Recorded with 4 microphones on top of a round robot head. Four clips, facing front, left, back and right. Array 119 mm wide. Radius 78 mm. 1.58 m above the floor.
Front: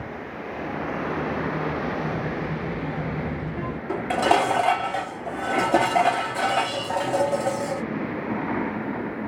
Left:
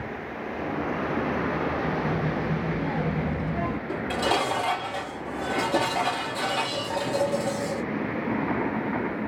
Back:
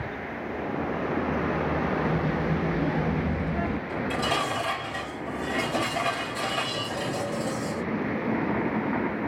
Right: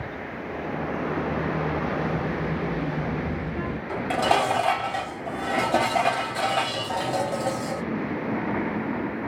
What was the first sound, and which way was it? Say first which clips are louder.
A child speaking: even, back 1 dB; 155° right.